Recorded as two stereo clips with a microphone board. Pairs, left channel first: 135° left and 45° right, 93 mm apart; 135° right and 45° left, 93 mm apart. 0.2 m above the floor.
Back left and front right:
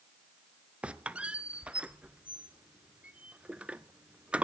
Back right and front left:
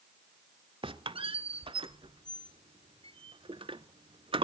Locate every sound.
0.8 s a squeak: 30° left, 0.6 m